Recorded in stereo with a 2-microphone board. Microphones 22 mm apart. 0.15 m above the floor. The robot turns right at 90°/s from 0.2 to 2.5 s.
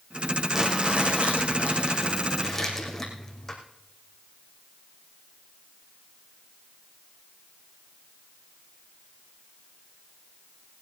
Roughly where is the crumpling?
Behind.